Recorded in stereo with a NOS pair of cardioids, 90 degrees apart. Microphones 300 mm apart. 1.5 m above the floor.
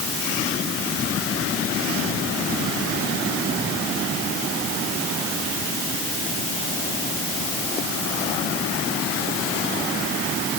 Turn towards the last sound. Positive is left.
No sound to turn to.